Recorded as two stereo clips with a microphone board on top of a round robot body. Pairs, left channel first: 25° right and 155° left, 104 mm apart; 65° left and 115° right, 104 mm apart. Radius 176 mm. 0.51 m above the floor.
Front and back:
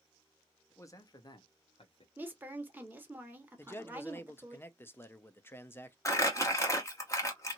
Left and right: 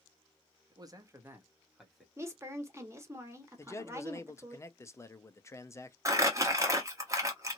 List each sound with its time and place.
0.7 s a man speaking: 80° right, 1.2 m; by 2.1 s 20° right, 1.4 m
2.2 s a woman speaking: 145° right, 1.3 m
3.6 s a man speaking: 30° left, 0.7 m
6.0 s crumpling: 70° right, 1.4 m